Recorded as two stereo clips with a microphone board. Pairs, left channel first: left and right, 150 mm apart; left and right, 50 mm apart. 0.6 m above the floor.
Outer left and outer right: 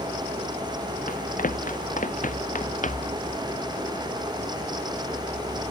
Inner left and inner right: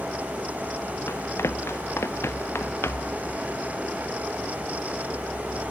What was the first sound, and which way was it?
Running footsteps, 65° left (ahead or behind).